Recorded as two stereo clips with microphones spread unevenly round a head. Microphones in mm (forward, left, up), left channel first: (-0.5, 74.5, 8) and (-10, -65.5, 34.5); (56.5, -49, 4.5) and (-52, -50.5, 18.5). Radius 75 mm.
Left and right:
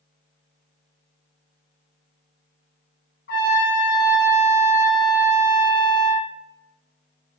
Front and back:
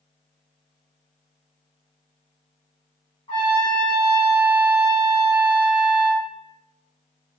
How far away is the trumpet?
About 0.6 m.